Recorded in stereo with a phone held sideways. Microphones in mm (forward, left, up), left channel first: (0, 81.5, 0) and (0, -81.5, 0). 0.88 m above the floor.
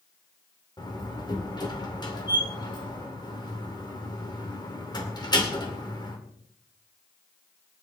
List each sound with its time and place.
0.8 s a door slam: 25° left (ahead or behind), 2 m